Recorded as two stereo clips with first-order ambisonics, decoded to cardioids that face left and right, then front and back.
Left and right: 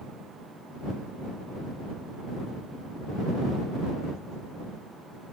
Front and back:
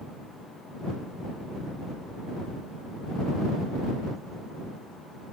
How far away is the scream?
No scream in this recording.